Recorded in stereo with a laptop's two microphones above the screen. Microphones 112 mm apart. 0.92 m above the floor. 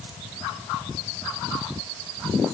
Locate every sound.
Only background noise.